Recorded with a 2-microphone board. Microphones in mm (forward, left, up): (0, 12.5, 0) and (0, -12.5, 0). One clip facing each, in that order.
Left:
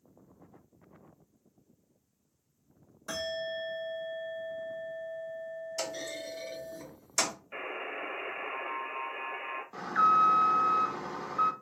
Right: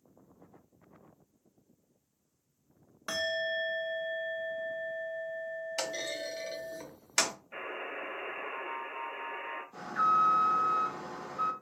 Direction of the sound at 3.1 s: 45° right (ahead or behind).